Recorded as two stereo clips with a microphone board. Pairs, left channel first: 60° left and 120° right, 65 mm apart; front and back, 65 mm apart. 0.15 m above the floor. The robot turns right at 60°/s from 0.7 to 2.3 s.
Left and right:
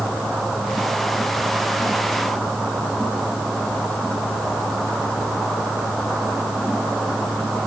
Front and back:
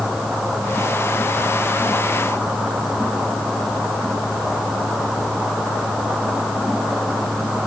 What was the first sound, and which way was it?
Only background noise.